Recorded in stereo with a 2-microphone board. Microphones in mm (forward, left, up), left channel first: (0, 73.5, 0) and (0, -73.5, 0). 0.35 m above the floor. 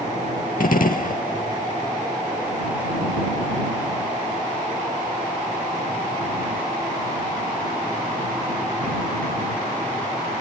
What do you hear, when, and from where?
0.6 s a gunshot: 70° left (ahead or behind)